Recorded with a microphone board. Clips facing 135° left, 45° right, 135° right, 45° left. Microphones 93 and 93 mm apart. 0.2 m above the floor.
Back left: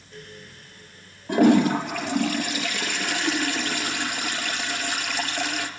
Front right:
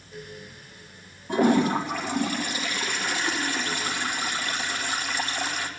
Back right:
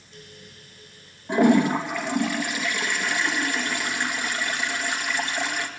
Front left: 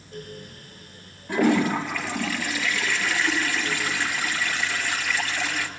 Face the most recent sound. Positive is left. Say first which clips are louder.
# back left 3 dB, back right 3 dB
turn(degrees=155)